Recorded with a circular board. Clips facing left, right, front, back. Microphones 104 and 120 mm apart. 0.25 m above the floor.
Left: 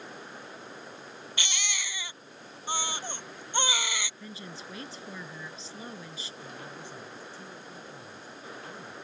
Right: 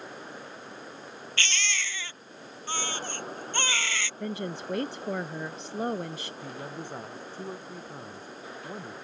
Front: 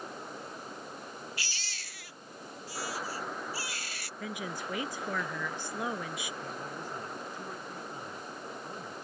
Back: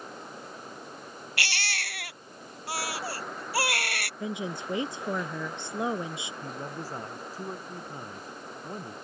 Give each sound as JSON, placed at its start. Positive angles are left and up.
{"t": 1.4, "sound": "a baby crying", "azimuth_deg": 165}
{"t": 4.2, "sound": "a woman speaking", "azimuth_deg": -115}
{"t": 6.4, "sound": "a man speaking", "azimuth_deg": -125}